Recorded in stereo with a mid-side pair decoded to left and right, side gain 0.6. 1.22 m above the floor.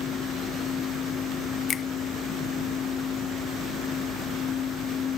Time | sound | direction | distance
0.0 | a fan | 40° left | ?
1.7 | a finger snap | 40° left | ?